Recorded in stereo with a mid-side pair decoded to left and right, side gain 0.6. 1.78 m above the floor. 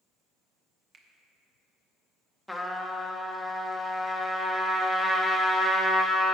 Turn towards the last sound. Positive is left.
turn(degrees=0)